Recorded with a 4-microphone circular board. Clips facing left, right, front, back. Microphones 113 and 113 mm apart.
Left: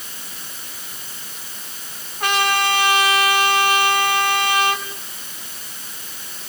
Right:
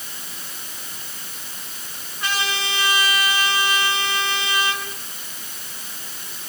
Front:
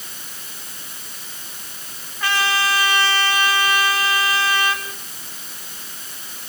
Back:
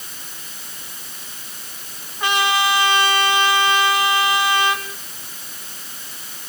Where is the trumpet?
110° left, 3.5 m.